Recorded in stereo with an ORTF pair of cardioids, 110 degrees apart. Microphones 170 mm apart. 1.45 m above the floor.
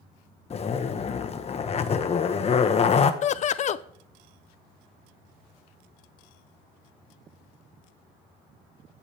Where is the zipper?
40° left, 1.2 m.